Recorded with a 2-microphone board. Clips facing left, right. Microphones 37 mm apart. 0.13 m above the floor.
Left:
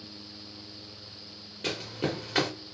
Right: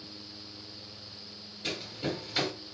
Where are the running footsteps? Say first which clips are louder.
Left 3 dB; 75° left (ahead or behind), 1.0 m.